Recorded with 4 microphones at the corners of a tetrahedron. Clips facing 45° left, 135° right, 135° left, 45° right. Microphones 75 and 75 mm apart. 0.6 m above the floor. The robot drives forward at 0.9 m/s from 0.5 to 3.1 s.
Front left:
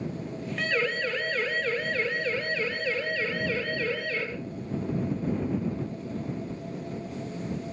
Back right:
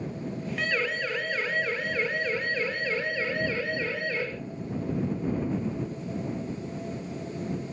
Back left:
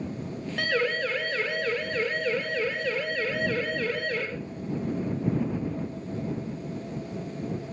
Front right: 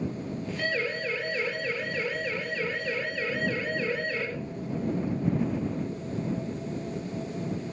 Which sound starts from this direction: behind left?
A siren, at 0.6 s.